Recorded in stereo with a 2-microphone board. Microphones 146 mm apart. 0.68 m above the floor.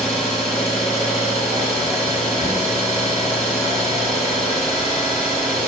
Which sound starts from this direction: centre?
An engine running, at 0.0 s.